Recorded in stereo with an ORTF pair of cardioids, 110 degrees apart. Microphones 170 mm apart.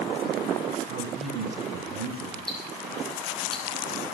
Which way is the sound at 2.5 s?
Straight ahead.